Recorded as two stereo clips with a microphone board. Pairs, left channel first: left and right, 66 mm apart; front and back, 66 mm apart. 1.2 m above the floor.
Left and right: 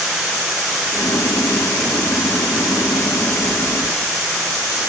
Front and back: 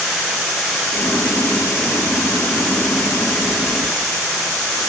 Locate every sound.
0.9 s boiling: 55° left, 1.2 m